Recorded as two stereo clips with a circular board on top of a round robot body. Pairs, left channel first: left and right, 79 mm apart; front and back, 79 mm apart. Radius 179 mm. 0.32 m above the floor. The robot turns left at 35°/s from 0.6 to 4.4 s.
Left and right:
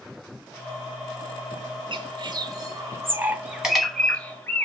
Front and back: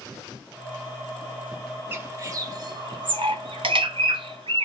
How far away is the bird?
About 0.6 m.